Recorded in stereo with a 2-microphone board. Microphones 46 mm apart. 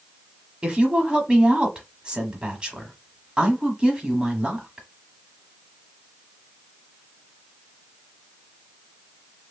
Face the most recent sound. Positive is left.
turn(degrees=-20)  # may be behind; listen again after turning